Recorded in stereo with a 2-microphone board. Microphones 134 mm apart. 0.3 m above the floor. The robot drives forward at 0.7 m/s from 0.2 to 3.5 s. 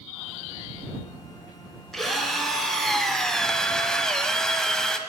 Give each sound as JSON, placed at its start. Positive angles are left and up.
{"t": 1.9, "sound": "a drill", "side_deg": 0, "distance_m": 1.8}